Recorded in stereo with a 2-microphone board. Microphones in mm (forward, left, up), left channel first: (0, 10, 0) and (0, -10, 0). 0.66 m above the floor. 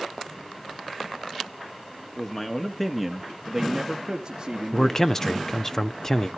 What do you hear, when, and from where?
2.2 s a man speaking: 25° left (ahead or behind), 1.5 m; by 5.3 s 45° right (ahead or behind), 2 m
4.7 s a man speaking: 25° left (ahead or behind), 0.6 m